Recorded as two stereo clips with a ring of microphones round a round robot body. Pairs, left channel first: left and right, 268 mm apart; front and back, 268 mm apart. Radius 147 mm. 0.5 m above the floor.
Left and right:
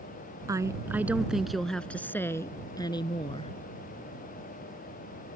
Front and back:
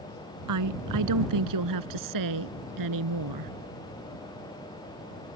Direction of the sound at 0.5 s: 170° right.